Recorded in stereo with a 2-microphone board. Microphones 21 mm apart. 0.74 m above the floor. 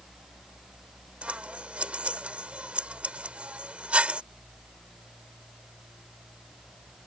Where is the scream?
No scream in this recording.